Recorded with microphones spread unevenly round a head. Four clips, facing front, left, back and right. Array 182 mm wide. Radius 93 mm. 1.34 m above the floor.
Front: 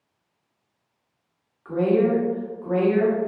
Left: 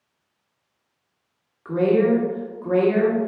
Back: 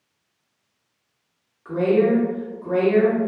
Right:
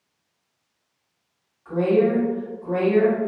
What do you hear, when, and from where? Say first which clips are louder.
1.6 s a woman speaking: left 1 dB, back 2 dB; 100° left, 1.1 m